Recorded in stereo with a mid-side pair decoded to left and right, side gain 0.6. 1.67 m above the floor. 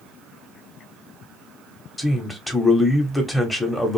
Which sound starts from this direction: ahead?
A man speaking, at 2.0 s.